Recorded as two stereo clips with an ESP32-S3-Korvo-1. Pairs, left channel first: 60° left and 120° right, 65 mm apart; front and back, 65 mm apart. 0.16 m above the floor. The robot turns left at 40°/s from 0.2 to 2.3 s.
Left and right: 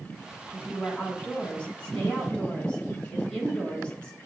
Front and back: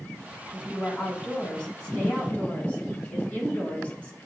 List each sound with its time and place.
0.5 s a woman speaking: 100° left, 1.0 m; by 4.2 s 25° left, 1.0 m